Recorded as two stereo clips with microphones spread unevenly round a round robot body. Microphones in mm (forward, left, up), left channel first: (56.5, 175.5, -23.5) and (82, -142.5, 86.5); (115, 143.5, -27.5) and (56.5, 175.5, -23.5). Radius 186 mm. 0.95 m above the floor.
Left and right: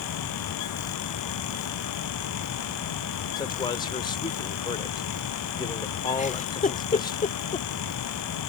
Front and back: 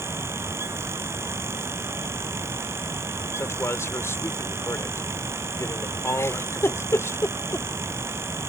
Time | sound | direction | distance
3.4 | a man speaking | 20° left | ?
6.2 | a giggle | 25° left | ?